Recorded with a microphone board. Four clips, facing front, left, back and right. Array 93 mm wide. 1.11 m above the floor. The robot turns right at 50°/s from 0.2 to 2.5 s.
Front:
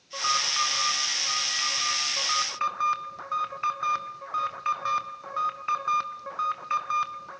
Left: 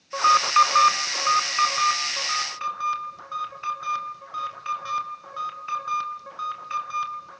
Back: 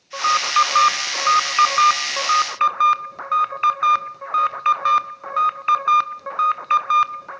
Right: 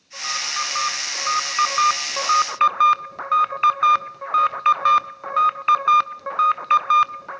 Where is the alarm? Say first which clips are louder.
Left 12 dB, back 11 dB; 120° left, 0.9 m; by 7.4 s 125° right, 0.9 m.